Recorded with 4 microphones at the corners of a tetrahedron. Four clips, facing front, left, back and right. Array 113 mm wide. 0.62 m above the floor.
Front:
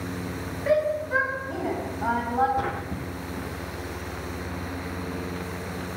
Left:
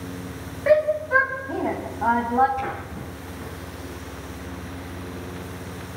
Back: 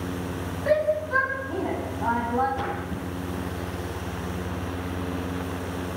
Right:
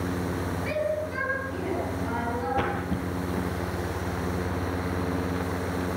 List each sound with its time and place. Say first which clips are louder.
0.7 s a shout: left 12 dB, back 1 dB; 105° left, 4.5 m; by 2.5 s 90° left, 5.5 m
2.6 s a splash: right 2 dB, front 1 dB; 80° right, 9 m